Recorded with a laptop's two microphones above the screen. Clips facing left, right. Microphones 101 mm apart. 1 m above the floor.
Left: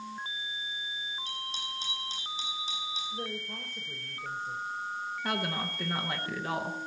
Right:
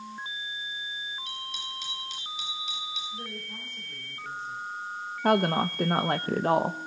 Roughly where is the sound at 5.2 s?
Right.